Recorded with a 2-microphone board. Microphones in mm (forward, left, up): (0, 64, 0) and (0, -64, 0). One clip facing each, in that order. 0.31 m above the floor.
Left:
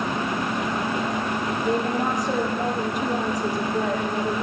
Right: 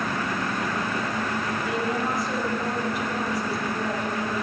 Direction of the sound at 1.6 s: 45° left (ahead or behind).